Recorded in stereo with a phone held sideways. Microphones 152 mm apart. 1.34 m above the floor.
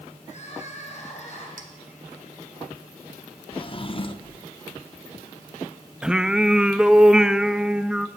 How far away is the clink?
About 3 m.